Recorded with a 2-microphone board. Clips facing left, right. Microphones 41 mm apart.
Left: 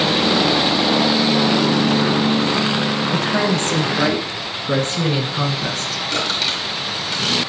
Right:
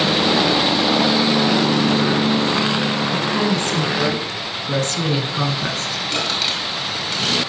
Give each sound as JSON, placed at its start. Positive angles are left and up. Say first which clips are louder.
{"t": 3.1, "sound": "a woman speaking", "louder": "left 1 dB", "side_deg": 55, "distance_m": 2.5}
{"t": 6.1, "sound": "crushing", "louder": "left 1 dB", "side_deg": 5, "distance_m": 3.5}